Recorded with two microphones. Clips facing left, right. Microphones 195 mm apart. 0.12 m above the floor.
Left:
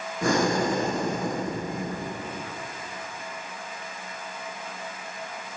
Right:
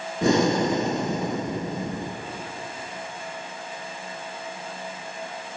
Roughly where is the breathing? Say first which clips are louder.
Right 3 dB; right.